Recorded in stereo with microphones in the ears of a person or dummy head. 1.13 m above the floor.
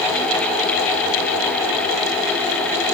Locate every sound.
Only background noise.